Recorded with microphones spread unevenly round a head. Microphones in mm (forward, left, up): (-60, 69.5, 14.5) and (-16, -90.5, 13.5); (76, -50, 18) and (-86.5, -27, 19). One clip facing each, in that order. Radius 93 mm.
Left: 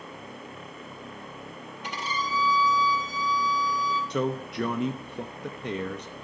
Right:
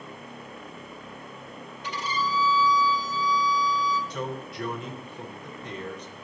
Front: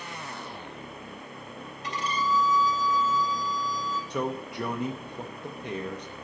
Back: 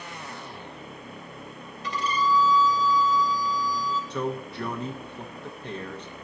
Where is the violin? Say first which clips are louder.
Right 3 dB, back 3 dB; 145° left, 3.5 m.